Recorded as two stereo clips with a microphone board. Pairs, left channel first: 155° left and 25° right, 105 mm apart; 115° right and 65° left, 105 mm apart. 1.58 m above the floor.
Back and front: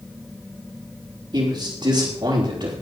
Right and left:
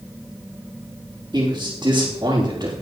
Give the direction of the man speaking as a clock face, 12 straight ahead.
12 o'clock.